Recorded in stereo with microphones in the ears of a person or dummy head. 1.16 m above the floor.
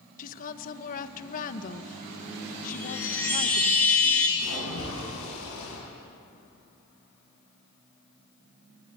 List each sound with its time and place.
0.2 s a woman speaking: 45° left (ahead or behind), 1.3 m
2.7 s a chime: 10° left (ahead or behind), 5 m
4.4 s a splash: 85° left, 9 m